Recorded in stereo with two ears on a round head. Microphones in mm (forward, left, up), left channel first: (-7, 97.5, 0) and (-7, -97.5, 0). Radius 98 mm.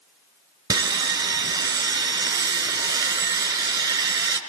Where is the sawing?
20° right (ahead or behind), 1.9 m.